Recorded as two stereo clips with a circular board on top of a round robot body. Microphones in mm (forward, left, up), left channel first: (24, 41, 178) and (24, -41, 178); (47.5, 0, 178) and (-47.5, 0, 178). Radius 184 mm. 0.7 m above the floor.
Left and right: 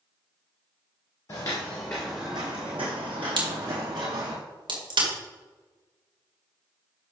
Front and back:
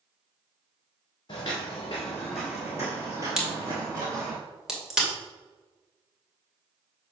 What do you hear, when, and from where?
1.3 s footsteps: 45° left, 1.0 m; by 4.4 s 125° right, 1.9 m
3.4 s a crack: 95° right, 2.5 m